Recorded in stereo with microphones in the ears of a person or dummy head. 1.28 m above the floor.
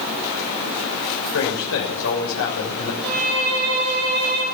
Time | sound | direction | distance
1.3 | a man speaking | 70° left (ahead or behind) | 6.5 m
3.0 | a violin | 85° right | 10 m